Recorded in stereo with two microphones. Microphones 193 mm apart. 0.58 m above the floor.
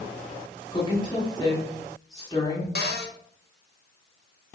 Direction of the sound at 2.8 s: 55° left (ahead or behind).